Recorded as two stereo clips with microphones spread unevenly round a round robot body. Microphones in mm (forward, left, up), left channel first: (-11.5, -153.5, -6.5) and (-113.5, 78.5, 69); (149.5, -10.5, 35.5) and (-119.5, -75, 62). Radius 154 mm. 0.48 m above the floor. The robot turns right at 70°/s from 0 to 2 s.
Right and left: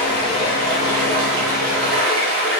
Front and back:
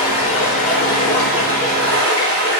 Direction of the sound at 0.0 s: 15° left.